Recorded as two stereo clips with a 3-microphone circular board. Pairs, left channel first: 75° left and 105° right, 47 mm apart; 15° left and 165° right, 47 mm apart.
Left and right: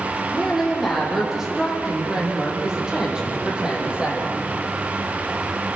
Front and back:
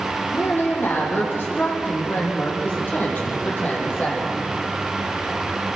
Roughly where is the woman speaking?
Ahead.